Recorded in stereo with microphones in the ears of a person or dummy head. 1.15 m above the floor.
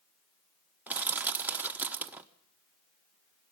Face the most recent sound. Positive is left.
turn(degrees=-10)  # may be behind; listen again after turning